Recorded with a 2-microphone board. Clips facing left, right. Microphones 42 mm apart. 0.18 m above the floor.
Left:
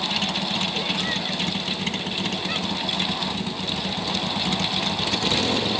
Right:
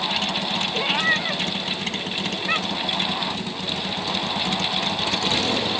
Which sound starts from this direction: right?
A cat meowing, at 0.7 s.